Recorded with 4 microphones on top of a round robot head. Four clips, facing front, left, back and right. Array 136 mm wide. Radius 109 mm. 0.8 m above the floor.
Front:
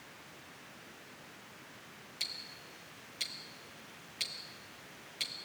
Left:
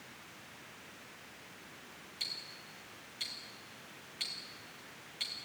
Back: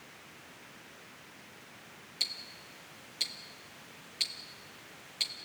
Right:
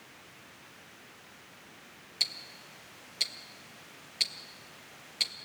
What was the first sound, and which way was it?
Ticking, 95° right.